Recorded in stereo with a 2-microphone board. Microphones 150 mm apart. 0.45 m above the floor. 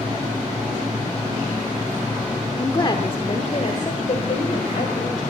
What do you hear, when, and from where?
2.6 s a woman speaking: 25° left (ahead or behind), 0.9 m; by 5.3 s 65° left (ahead or behind), 2 m